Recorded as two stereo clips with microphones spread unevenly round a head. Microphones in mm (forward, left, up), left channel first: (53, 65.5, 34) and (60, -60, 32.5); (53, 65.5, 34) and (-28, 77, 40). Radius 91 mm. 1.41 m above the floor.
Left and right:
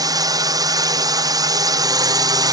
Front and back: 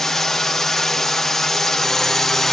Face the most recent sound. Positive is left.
turn(degrees=-85)